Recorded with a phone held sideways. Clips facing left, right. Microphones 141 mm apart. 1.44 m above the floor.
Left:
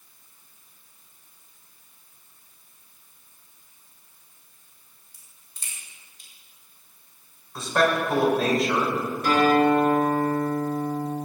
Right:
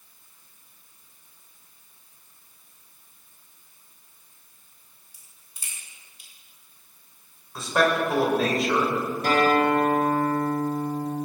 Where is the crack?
10° right (ahead or behind), 6.5 m.